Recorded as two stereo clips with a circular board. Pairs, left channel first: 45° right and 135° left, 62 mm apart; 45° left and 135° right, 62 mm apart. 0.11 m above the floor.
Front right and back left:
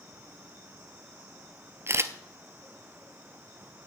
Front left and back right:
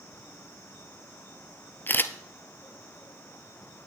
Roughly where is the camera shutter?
Left.